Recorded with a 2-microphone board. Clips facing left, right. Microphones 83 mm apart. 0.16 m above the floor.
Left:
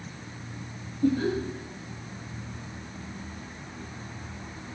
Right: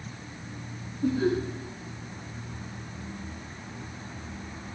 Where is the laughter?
5° right (ahead or behind), 5 m.